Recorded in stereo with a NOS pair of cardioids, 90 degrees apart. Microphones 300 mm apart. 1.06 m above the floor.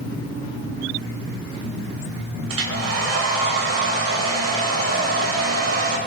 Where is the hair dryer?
50° right, 3.5 m.